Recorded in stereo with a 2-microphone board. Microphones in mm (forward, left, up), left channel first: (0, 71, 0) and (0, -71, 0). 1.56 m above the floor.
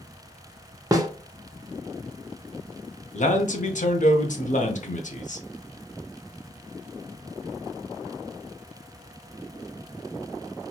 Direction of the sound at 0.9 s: 25° right (ahead or behind).